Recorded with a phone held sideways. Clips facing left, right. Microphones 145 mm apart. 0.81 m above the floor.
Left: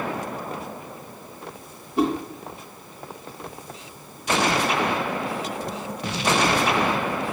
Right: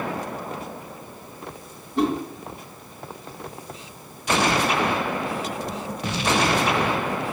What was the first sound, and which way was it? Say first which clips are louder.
A whoosh: even; 5° left (ahead or behind).